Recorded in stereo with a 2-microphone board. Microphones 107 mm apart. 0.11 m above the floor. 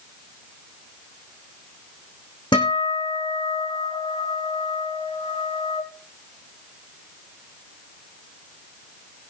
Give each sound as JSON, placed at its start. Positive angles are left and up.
{"t": 2.5, "sound": "a guitar", "side_deg": 50, "distance_m": 4.0}